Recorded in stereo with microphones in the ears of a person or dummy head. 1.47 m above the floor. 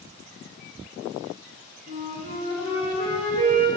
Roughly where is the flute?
Left.